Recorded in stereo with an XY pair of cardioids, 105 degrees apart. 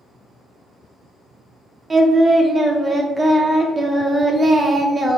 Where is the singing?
20° right, 0.7 m.